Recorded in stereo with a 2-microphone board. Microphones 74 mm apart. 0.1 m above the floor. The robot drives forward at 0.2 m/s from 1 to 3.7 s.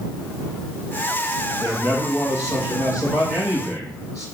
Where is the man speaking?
25° right (ahead or behind), 3.5 m; by 4.2 s 20° right (ahead or behind), 3.5 m.